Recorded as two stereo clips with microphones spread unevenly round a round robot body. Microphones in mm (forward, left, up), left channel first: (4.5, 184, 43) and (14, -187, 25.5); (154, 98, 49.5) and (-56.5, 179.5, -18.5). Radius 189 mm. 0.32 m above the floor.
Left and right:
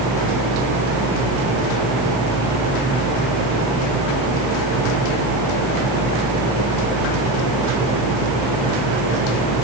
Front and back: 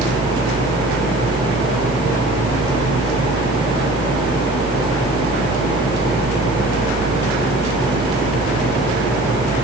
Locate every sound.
Only background noise.